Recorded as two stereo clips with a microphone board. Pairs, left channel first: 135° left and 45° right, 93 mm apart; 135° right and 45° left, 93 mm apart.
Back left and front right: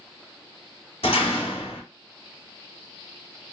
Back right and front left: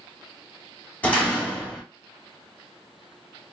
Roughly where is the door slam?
Behind left.